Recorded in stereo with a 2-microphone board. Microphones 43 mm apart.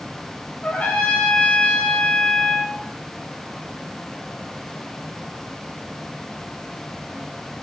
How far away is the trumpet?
About 1.1 m.